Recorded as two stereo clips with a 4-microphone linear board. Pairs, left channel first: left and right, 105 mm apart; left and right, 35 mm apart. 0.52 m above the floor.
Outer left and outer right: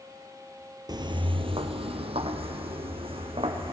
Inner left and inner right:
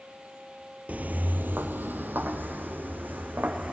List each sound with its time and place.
0.9 s footsteps: 45° right (ahead or behind), 0.8 m; by 3.7 s 60° right (ahead or behind), 2.5 m